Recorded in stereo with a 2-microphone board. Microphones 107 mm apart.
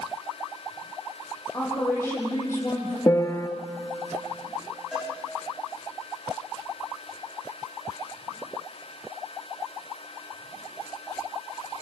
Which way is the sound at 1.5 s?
25° left (ahead or behind).